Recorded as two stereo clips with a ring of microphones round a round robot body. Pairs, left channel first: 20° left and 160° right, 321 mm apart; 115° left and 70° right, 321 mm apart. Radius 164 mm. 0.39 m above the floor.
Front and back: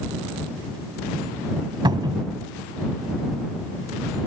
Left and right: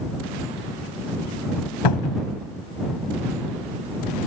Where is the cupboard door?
125° left.